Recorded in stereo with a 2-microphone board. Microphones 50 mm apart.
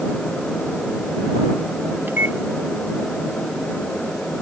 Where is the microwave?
45° right (ahead or behind).